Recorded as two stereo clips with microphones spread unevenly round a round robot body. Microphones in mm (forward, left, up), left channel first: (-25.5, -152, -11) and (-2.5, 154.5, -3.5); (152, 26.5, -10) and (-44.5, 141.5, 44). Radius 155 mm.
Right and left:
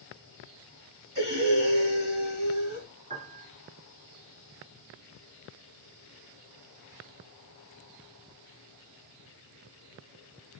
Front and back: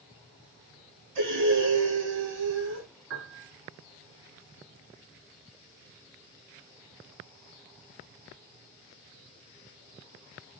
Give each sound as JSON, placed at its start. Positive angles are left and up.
{"t": 1.1, "sound": "breathing", "azimuth_deg": 155, "distance_m": 4.0}
{"t": 3.1, "sound": "a piano", "azimuth_deg": 150, "distance_m": 1.8}